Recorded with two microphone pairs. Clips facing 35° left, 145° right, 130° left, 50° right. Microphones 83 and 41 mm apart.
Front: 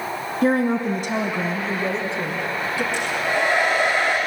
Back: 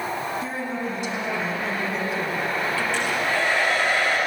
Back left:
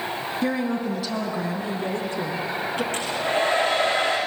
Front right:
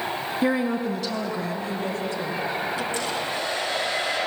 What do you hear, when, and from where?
0.4 s a woman speaking: 25° left, 2 m; by 2.8 s 105° left, 3 m
2.9 s a hair dryer: 105° left, 9.5 m